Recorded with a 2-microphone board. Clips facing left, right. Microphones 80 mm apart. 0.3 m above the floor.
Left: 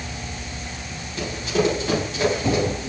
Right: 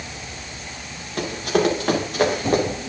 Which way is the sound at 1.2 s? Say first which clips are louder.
Right 2 dB; 60° right (ahead or behind).